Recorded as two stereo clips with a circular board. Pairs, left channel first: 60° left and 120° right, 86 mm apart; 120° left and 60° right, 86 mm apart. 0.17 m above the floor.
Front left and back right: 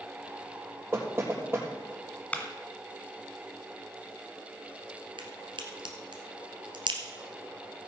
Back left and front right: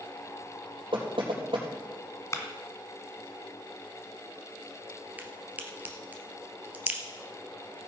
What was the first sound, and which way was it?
Knocking, 60° right.